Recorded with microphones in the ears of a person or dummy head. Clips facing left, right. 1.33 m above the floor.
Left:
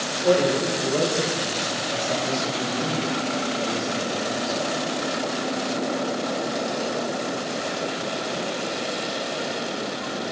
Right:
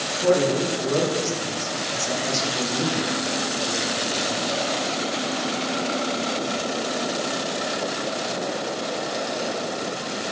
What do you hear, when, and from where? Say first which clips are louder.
0.1 s a man speaking: even; 80° right, 3 m; by 4.8 s 55° left (ahead or behind), 1.4 m